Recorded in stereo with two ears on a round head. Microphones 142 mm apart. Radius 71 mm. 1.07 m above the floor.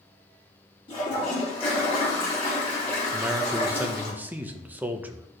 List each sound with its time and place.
0.9 s a toilet flushing: 40° left (ahead or behind), 3.5 m
3.1 s a man speaking: 10° right (ahead or behind), 0.8 m